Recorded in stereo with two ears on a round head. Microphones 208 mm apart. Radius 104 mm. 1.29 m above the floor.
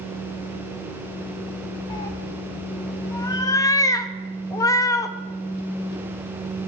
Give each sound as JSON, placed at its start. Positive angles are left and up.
{"t": 1.9, "sound": "a cat meowing", "side_deg": 15, "distance_m": 0.6}